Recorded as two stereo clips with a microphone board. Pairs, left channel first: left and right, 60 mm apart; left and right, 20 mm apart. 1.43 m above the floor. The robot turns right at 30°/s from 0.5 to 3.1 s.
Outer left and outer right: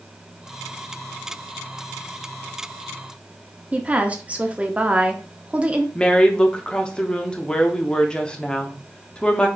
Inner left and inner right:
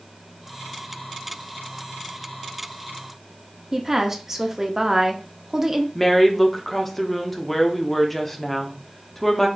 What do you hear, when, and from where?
3.7 s a woman speaking: 20° right (ahead or behind), 0.5 m
6.0 s a woman speaking: 15° left (ahead or behind), 0.5 m